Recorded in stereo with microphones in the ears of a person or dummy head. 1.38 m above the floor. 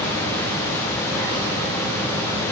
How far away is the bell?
I don't hear a bell.